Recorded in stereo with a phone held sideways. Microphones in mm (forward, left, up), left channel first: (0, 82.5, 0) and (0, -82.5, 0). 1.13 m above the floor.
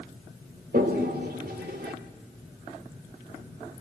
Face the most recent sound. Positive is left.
turn(degrees=-70)  # may be behind; listen again after turning